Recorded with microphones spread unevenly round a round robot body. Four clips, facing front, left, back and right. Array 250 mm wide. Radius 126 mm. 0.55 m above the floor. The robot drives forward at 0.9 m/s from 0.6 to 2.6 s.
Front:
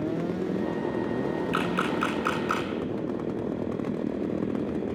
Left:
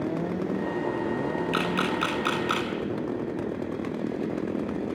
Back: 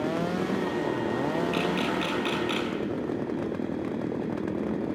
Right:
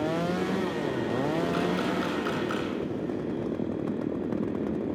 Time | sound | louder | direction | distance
1.5 | a camera shutter | left 1 dB, even | 50° left | 7 m